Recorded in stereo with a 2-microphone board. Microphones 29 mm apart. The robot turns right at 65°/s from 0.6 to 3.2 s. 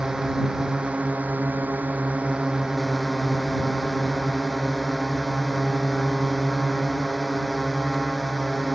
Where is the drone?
155° right; by 8.8 s 15° left.